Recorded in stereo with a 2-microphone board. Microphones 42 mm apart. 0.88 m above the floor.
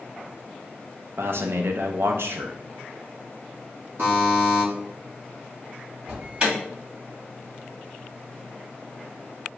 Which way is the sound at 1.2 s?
65° right (ahead or behind).